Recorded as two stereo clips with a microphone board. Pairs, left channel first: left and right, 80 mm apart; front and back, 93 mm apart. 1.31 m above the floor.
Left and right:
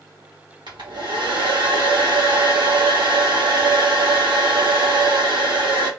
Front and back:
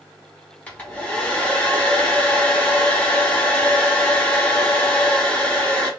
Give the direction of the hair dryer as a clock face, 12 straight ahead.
2 o'clock.